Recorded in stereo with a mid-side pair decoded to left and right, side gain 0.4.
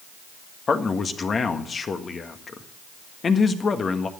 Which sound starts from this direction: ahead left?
A man speaking, at 0.7 s.